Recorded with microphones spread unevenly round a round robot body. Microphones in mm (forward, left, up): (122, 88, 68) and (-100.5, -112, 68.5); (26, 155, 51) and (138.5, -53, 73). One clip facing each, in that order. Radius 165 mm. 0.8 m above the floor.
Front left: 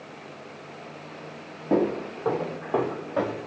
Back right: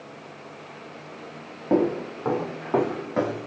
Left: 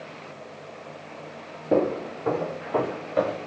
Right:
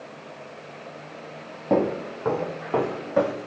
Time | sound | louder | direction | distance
1.7 | footsteps | back right 2 dB, even | 60° right | 1.9 m